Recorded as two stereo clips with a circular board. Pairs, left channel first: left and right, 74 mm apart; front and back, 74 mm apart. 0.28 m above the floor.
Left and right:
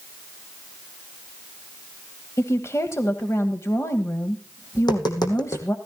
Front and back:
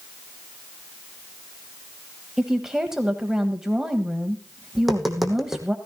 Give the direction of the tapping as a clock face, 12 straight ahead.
9 o'clock.